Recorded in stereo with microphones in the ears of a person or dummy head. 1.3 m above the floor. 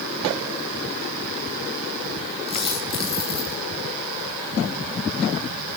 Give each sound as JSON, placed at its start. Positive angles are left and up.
{"t": 2.5, "sound": "a dropped coin", "side_deg": 25, "distance_m": 7.5}